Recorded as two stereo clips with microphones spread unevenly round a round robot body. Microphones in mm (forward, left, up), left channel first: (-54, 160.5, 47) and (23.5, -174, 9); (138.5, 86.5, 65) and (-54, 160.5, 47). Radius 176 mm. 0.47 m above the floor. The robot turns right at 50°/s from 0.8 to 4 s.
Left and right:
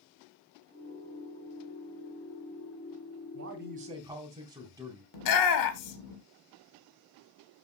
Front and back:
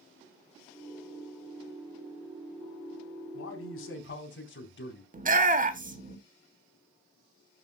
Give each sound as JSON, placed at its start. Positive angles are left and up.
{"t": 3.3, "sound": "a man speaking", "azimuth_deg": -30, "distance_m": 3.5}
{"t": 5.1, "sound": "a shout", "azimuth_deg": 125, "distance_m": 2.0}